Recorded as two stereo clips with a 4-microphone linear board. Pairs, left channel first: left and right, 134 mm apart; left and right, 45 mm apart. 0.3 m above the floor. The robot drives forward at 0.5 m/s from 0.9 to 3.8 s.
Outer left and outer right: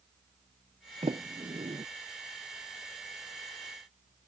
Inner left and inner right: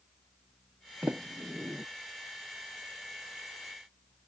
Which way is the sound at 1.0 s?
45° right (ahead or behind).